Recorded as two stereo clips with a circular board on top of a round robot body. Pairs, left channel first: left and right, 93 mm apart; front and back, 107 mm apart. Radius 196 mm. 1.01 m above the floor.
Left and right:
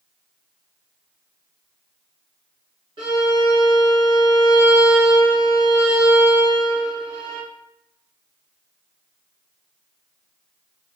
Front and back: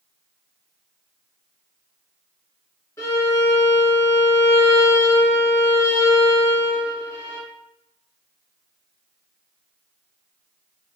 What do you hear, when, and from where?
3.0 s a violin: 65° right, 0.9 m